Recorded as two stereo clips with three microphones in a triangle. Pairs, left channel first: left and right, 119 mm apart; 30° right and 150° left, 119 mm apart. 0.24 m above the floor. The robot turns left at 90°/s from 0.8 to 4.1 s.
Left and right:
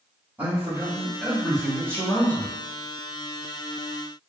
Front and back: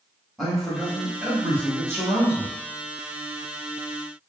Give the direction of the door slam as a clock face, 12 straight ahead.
No door slam in this recording.